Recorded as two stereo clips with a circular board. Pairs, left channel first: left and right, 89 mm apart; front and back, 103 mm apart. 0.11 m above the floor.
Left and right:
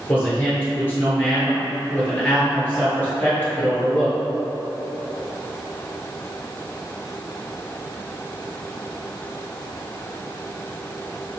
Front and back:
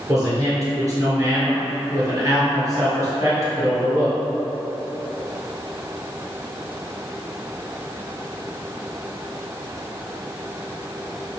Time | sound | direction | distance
0.1 | a man speaking | 145° left | 1.6 m